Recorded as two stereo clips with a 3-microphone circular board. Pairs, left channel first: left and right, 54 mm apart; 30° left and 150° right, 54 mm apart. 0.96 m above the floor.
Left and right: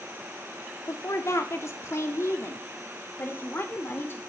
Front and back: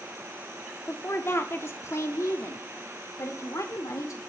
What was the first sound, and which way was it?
A woman speaking, 75° left.